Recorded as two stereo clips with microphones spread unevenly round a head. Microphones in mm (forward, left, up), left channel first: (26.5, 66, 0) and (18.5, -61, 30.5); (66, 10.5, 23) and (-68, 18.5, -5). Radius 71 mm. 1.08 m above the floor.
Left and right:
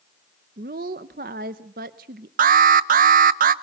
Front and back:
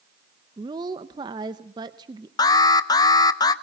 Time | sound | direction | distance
0.6 | a woman speaking | 125° right | 0.7 m
2.4 | an alarm | 70° right | 0.7 m